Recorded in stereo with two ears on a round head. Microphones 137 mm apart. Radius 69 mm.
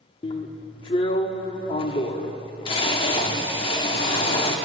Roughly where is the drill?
Left.